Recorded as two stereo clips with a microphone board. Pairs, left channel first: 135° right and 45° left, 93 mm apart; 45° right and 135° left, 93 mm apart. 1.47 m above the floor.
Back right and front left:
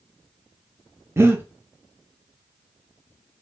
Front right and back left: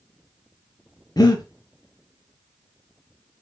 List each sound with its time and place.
1.2 s breathing: 10° right, 0.5 m